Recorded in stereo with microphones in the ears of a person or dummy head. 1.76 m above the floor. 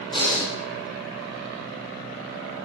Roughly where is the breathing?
Left.